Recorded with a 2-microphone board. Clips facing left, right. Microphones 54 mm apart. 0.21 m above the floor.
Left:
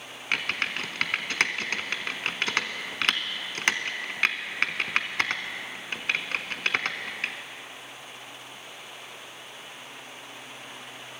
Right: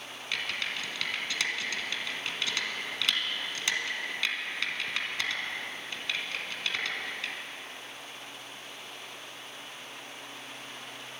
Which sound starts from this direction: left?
Typing on a keyboard, at 0.3 s.